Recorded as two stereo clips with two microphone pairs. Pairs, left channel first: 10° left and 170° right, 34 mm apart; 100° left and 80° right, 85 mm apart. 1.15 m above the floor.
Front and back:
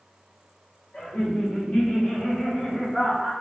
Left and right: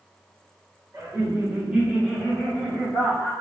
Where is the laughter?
30° right, 1.5 m; by 3.3 s 25° left, 2.5 m.